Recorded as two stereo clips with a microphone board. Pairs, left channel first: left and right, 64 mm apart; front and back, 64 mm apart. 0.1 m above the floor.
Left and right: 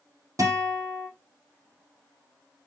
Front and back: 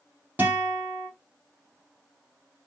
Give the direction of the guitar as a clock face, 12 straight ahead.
4 o'clock.